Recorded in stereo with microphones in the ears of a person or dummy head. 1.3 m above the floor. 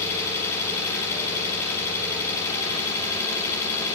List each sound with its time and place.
0.0 s an engine running: 15° left (ahead or behind), 8.5 m